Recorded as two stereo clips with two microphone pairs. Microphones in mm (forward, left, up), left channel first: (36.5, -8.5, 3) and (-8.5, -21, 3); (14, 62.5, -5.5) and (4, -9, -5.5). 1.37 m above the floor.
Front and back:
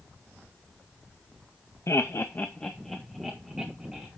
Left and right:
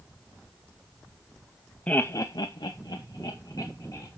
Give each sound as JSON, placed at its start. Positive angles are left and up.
{"t": 1.9, "sound": "laughter", "azimuth_deg": 10, "distance_m": 0.8}